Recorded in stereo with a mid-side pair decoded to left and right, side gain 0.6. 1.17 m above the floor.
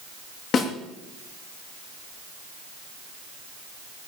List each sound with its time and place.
0.5 s a snare drum: 50° left, 2.5 m